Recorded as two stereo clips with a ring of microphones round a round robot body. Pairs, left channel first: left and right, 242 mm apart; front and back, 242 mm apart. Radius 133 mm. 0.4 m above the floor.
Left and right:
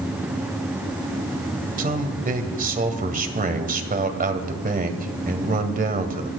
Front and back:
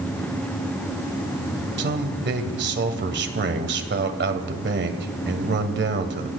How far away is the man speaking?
About 1.8 m.